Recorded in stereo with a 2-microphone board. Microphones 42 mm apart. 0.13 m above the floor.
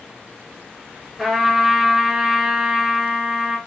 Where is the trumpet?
5° right (ahead or behind), 0.8 m.